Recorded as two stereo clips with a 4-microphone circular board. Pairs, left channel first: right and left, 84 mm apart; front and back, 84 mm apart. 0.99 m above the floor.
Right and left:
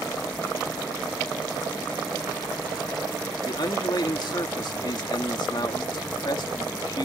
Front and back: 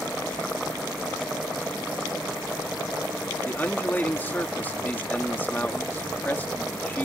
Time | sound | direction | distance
3.5 | a man speaking | 65° right | ?